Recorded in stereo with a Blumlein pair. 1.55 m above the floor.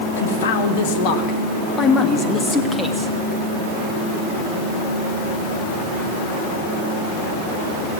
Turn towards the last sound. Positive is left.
turn(degrees=5)